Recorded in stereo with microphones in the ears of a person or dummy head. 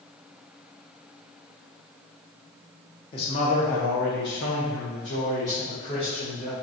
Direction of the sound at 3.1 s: 30° left (ahead or behind).